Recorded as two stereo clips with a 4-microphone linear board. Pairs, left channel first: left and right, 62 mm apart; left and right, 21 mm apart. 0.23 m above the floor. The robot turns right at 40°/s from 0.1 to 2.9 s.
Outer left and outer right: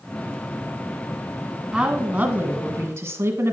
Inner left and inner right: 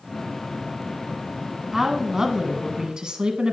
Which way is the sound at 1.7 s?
165° right.